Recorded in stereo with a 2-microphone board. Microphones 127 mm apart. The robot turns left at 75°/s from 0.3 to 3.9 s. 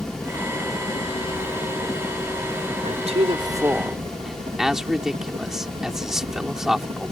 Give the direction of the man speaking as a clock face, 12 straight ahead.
3 o'clock.